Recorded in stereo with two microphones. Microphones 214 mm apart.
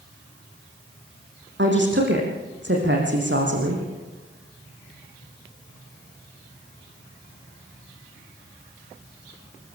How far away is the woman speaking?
About 5 m.